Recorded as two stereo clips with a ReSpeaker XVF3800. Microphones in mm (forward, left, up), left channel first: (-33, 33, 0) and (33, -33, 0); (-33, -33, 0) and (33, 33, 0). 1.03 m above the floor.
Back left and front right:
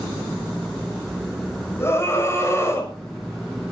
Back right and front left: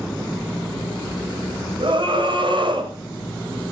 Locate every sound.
1.8 s a scream: 70° left, 6 m